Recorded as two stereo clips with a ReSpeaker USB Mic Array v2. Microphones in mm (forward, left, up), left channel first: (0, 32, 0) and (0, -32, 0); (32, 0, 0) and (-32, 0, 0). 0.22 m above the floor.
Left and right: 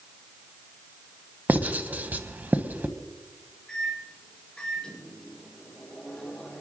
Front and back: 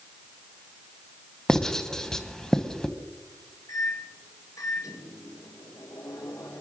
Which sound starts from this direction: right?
Writing, at 1.5 s.